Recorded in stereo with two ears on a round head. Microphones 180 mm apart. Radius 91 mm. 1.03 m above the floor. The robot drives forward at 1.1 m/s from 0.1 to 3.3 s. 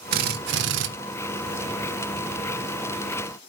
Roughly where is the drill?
Right.